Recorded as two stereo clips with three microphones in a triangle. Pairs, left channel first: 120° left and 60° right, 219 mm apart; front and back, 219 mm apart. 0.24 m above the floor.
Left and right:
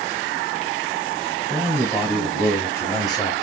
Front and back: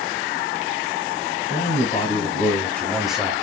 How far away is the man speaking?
About 1.7 m.